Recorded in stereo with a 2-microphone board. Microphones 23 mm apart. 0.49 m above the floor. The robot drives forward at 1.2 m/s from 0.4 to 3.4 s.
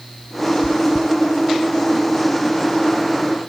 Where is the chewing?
75° left (ahead or behind), 0.9 m; by 1.1 s 45° left (ahead or behind), 1.2 m.